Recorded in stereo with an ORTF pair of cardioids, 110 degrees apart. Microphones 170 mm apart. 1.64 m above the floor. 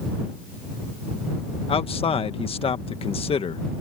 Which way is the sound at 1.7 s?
35° left.